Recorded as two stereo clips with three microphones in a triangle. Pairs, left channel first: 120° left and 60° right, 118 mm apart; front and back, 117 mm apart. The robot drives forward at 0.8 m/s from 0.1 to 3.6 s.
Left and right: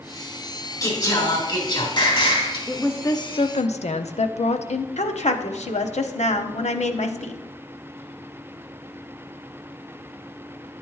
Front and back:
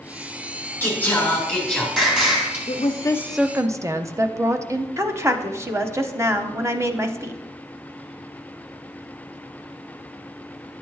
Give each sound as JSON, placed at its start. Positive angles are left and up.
{"t": 0.8, "sound": "singing", "azimuth_deg": 70, "distance_m": 2.5}
{"t": 2.7, "sound": "a woman speaking", "azimuth_deg": 40, "distance_m": 0.7}
{"t": 5.0, "sound": "a woman speaking", "azimuth_deg": 115, "distance_m": 0.7}